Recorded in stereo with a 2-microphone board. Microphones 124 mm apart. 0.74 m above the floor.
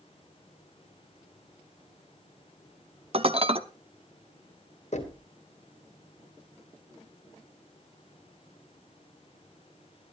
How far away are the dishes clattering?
About 0.8 m.